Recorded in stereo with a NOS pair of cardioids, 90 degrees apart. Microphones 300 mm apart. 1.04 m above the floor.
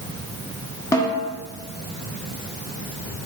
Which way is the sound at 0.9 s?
10° left.